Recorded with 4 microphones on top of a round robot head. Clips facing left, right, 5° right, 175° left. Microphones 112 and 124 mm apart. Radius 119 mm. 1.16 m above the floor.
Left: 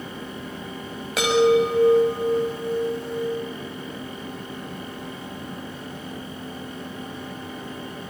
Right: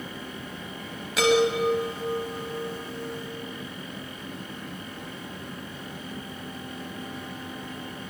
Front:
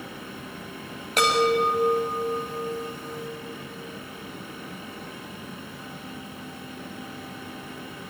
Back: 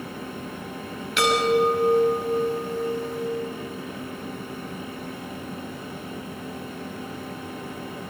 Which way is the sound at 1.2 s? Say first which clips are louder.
Left 4 dB, back 1 dB; 45° left.